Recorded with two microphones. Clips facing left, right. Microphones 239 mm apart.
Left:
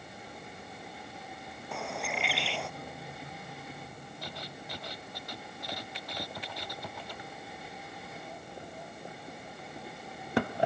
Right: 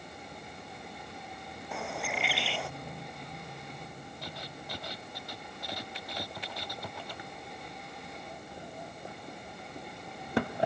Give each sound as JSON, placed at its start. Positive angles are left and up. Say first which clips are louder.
{"t": 1.7, "sound": "a bird", "louder": "even", "side_deg": 0}